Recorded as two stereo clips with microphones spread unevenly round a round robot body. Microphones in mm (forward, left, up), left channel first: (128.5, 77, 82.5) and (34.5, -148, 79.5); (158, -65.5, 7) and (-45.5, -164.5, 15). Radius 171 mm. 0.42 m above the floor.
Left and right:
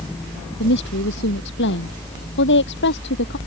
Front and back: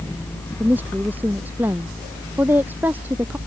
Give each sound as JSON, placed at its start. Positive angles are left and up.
{"t": 0.6, "sound": "a woman speaking", "azimuth_deg": 120}